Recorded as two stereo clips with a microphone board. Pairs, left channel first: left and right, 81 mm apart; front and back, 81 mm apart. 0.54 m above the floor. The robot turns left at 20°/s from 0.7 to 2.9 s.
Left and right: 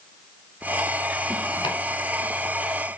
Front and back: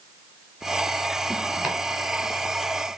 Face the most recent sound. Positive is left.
turn(degrees=70)